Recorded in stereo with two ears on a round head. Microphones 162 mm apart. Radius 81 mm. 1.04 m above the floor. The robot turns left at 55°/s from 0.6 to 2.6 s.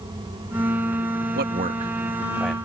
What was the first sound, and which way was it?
A man speaking, 60° right (ahead or behind).